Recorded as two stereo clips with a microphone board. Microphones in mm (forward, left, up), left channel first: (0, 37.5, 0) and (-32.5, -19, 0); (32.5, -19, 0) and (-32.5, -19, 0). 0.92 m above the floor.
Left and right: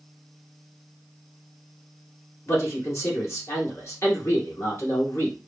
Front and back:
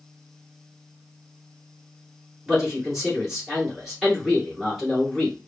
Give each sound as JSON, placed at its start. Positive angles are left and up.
{"t": 2.5, "sound": "a man speaking", "azimuth_deg": 95, "distance_m": 1.9}